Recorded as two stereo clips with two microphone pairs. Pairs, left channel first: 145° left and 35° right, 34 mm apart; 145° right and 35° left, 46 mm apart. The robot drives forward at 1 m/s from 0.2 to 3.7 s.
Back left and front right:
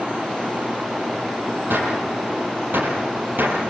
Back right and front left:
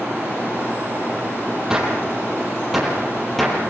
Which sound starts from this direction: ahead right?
A gunshot, at 1.7 s.